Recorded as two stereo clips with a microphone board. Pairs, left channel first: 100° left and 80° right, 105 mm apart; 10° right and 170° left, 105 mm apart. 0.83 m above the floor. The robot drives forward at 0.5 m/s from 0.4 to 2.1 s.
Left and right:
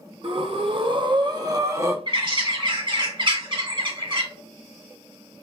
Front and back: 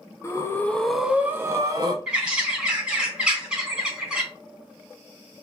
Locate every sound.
0.2 s breathing: 75° right, 0.6 m; by 2.0 s 140° right, 0.9 m
2.1 s a bird: 110° right, 1.3 m